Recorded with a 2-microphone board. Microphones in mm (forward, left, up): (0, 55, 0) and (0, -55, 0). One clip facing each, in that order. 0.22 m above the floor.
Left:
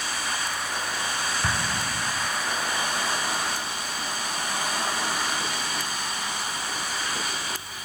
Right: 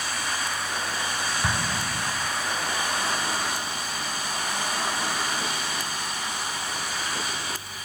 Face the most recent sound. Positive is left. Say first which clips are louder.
# even
turn(degrees=-5)  # may be behind; listen again after turning